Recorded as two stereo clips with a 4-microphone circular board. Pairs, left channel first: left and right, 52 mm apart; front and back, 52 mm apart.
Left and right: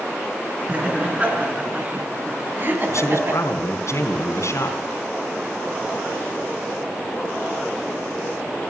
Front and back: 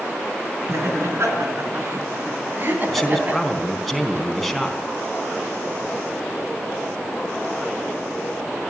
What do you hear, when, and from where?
0.7 s laughter: 155° right, 5 m; by 3.4 s 125° right, 3 m
2.9 s a man speaking: 90° left, 3.5 m